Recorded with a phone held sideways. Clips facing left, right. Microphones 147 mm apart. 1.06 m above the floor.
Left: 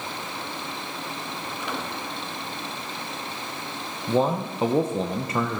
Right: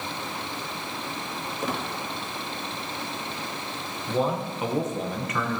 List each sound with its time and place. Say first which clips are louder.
1.6 s a squeak: right 3 dB; 45° right (ahead or behind), 1.5 m
4.1 s a man speaking: left 3 dB; 30° left (ahead or behind), 0.9 m